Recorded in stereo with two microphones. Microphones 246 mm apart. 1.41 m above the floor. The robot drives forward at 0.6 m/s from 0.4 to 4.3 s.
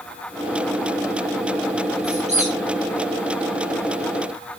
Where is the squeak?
30° right (ahead or behind), 9.5 m; by 2.5 s 25° right (ahead or behind), 9.5 m.